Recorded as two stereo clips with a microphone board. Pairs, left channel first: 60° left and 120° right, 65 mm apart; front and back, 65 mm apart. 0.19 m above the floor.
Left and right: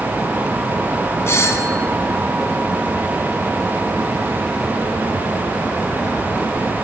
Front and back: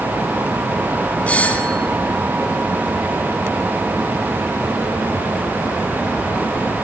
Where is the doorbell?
60° left, 2 m.